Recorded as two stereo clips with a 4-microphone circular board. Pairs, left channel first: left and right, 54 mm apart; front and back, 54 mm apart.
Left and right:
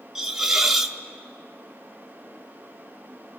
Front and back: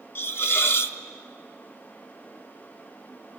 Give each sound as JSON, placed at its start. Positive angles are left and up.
{"t": 0.1, "sound": "a hiss", "azimuth_deg": -10, "distance_m": 0.8}